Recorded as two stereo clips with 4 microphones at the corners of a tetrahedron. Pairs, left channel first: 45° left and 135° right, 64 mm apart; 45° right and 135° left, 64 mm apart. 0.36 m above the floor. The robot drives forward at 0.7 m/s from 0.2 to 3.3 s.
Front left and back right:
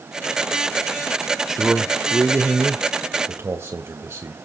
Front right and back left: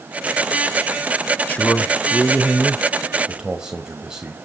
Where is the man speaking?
60° right, 1.1 m; by 4.3 s 155° right, 1.5 m.